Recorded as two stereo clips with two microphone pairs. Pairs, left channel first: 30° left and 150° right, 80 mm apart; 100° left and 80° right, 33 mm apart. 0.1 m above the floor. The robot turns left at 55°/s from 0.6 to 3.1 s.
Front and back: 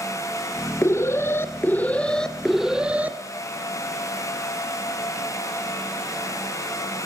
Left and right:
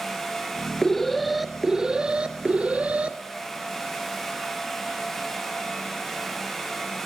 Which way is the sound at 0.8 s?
35° left.